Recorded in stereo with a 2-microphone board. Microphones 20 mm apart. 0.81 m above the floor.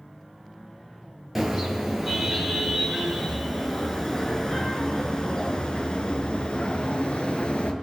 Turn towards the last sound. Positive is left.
turn(degrees=70)  # may be behind; listen again after turning